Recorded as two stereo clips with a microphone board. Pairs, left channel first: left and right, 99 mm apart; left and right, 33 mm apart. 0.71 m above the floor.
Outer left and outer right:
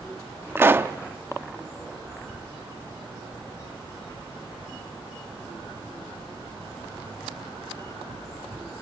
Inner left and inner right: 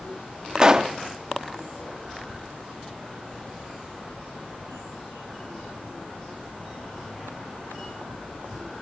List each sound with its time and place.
0.6 s a pop: 20° right (ahead or behind), 0.6 m